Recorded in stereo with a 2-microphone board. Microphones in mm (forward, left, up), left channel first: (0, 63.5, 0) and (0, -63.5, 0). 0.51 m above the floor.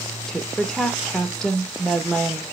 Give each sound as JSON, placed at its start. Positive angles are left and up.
{"t": 0.3, "sound": "a woman speaking", "side_deg": 5, "distance_m": 1.1}